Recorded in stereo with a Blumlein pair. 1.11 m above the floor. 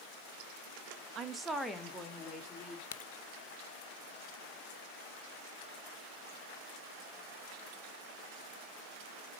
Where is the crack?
60° left, 0.7 m.